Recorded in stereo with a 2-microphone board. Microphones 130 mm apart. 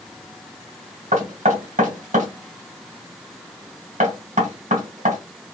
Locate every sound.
1.1 s knocking: 70° right (ahead or behind), 2 m